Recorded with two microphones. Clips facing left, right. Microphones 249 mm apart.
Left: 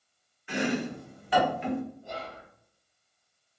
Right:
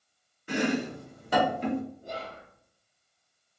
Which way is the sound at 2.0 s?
35° right (ahead or behind).